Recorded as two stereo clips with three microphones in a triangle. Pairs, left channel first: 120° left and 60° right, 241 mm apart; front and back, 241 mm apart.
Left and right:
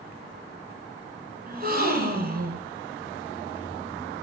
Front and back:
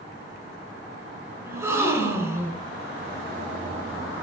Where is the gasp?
100° right, 1.4 m.